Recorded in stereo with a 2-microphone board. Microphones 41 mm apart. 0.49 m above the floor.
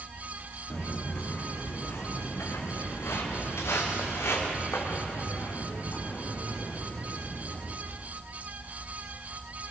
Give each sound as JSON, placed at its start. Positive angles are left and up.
{"t": 0.7, "sound": "footsteps", "side_deg": 65, "distance_m": 5.0}